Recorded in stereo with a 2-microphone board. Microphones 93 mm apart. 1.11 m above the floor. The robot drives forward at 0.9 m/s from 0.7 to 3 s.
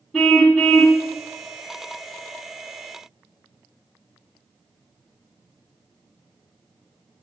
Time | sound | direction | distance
0.1 | a car horn | 5° left (ahead or behind) | 4 m